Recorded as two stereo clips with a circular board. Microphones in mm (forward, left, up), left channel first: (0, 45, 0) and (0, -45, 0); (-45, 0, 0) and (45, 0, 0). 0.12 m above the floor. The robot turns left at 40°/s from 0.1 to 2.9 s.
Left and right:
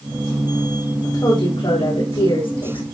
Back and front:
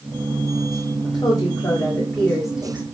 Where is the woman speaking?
145° left, 8 m; by 2.8 s 70° left, 8 m.